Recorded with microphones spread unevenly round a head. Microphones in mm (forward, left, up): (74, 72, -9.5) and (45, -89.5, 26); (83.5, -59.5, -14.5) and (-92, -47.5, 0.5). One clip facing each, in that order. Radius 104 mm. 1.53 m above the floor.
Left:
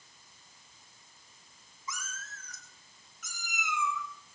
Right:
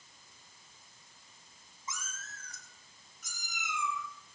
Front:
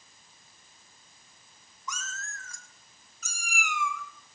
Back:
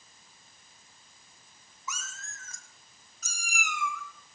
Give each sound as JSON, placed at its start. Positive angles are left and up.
{"t": 1.9, "sound": "a cat meowing", "azimuth_deg": -110, "distance_m": 1.6}